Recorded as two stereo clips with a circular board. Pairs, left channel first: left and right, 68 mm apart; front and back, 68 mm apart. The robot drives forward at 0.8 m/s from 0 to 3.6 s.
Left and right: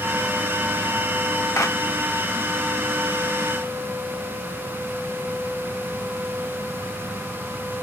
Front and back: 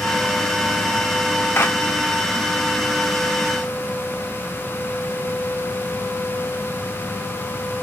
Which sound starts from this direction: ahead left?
A clap, at 1.6 s.